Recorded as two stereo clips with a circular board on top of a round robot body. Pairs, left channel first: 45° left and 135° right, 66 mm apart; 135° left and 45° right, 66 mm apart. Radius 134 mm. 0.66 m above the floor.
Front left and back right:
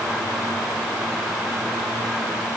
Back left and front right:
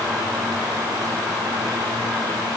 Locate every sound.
Only background noise.